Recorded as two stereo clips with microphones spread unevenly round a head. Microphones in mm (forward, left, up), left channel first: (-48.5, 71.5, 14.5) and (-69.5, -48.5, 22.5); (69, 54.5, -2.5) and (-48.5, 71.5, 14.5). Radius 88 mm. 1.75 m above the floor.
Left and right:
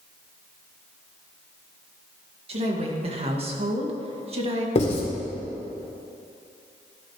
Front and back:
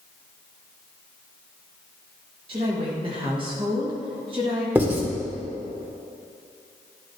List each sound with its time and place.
2.5 s a woman speaking: 130° right, 1.8 m
4.8 s writing: 105° left, 2 m